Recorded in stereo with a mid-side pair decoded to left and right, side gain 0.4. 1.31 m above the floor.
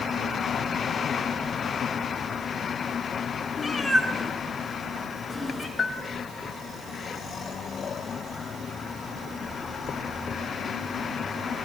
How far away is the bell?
About 3 m.